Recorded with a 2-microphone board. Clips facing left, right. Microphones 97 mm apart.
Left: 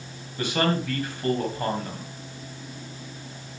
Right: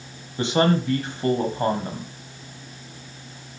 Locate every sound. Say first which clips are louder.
0.4 s a man speaking: right 5 dB; 25° right (ahead or behind), 1.7 m